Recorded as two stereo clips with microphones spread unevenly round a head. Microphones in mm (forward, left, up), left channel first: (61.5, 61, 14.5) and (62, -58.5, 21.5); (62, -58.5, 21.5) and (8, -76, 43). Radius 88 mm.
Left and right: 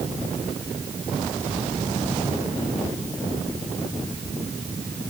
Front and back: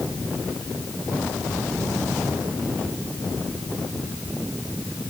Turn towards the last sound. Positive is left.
No sound to turn to.